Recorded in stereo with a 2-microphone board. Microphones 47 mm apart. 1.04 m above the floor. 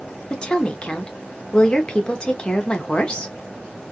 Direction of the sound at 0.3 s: 20° left (ahead or behind).